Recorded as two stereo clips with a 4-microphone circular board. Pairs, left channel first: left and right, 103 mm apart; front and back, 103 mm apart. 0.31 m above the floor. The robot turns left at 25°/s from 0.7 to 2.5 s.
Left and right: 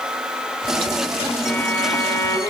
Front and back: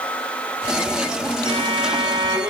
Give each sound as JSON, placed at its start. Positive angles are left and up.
{"t": 1.4, "sound": "a violin", "azimuth_deg": 170, "distance_m": 2.0}